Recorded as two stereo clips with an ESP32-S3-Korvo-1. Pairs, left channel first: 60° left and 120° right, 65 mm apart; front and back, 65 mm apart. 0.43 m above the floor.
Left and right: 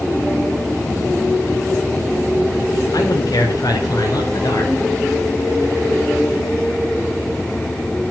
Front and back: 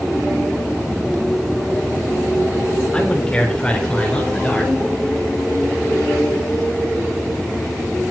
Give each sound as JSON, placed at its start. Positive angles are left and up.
{"t": 2.9, "sound": "a man speaking", "azimuth_deg": 75, "distance_m": 6.0}